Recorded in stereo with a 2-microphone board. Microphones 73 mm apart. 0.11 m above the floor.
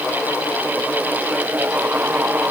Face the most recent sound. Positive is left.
No sound to turn to.